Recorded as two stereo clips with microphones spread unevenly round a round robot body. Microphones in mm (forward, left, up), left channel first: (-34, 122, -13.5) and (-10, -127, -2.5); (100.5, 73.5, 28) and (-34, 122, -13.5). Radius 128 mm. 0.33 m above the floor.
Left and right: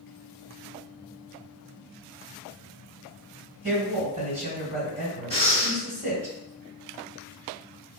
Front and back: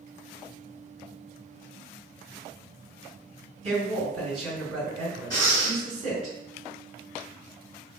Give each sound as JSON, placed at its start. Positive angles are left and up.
{"t": 3.6, "sound": "a woman speaking", "azimuth_deg": -135, "distance_m": 1.8}
{"t": 5.3, "sound": "breathing", "azimuth_deg": -90, "distance_m": 1.4}